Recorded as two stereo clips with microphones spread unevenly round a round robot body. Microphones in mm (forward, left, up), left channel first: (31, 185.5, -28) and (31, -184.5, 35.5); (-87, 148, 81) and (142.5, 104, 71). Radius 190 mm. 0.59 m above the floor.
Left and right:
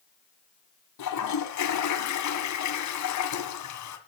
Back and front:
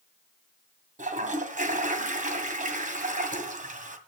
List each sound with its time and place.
1.0 s a toilet flushing: 45° left, 2.0 m